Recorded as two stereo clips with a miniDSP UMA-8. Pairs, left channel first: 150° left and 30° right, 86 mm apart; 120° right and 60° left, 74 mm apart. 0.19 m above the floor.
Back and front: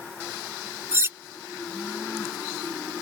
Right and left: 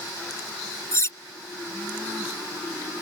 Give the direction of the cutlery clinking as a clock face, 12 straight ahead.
3 o'clock.